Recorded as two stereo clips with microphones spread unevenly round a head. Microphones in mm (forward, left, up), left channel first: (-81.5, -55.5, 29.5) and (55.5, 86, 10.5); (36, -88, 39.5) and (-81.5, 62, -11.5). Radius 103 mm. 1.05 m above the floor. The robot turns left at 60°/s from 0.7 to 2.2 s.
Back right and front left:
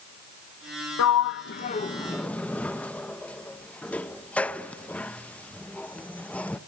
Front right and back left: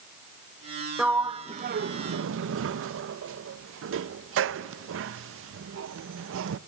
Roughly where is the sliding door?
Behind right.